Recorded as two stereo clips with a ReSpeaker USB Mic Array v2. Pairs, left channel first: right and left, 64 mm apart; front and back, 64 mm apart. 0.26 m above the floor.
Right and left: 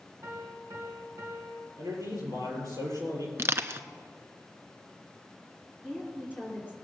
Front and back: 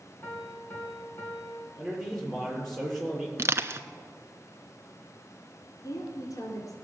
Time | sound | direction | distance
0.2 | a piano | 55° left | 3 m
1.8 | a man speaking | 90° left | 6 m
3.4 | crushing | 135° left | 0.8 m
5.8 | a woman speaking | 15° left | 3 m